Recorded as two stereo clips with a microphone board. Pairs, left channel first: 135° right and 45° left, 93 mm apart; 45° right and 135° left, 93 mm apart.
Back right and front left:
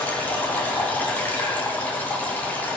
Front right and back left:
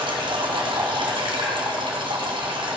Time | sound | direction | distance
0.0 | running water | 155° left | 1.8 m